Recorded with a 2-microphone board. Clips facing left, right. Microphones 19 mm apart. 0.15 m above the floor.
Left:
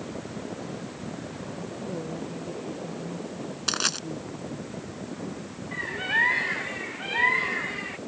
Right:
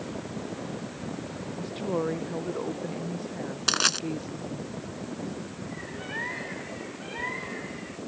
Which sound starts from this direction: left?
A bird, at 5.7 s.